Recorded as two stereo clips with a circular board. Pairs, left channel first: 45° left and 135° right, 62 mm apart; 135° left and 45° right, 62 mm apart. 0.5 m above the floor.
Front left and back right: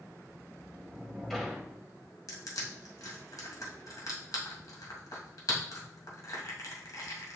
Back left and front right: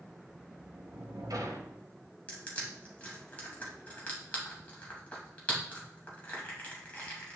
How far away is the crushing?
About 2 m.